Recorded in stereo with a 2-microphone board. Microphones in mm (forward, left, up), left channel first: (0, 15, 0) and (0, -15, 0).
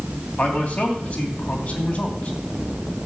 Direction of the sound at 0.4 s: 55° left (ahead or behind).